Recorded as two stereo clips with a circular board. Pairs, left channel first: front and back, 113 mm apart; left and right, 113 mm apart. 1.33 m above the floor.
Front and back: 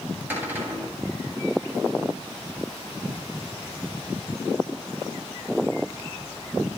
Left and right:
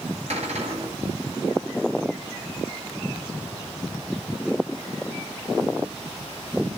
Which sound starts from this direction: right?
A cupboard door, at 0.3 s.